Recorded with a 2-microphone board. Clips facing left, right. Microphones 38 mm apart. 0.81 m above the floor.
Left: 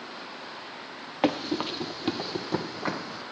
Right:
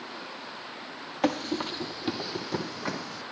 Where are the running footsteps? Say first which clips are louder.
Left 1 dB; 25° left (ahead or behind), 1.3 m.